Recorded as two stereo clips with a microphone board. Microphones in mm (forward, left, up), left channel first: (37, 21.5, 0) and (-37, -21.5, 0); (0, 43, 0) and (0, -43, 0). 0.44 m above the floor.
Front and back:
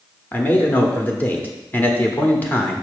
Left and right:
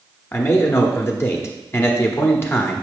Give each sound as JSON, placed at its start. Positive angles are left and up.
{"t": 0.3, "sound": "a man speaking", "azimuth_deg": 80, "distance_m": 1.0}